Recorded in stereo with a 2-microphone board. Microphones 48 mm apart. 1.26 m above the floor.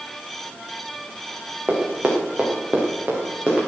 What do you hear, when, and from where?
1.7 s running footsteps: 30° right (ahead or behind), 4 m; by 3.7 s 20° right (ahead or behind), 6.5 m